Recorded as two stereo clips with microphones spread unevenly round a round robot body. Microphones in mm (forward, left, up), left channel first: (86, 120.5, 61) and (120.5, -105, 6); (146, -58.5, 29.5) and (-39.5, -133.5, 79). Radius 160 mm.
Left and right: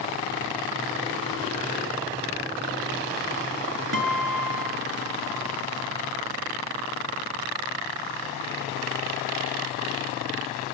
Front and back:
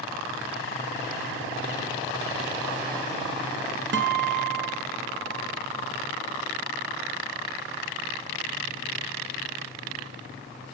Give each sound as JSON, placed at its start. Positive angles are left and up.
{"t": 3.9, "sound": "a guitar", "azimuth_deg": -130, "distance_m": 1.5}